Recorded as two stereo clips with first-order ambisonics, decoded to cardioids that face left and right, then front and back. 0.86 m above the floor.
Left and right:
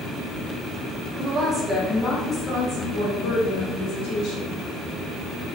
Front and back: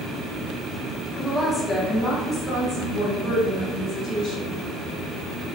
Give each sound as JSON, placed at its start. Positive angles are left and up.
{"t": 1.2, "sound": "a woman speaking", "azimuth_deg": -95, "distance_m": 0.6}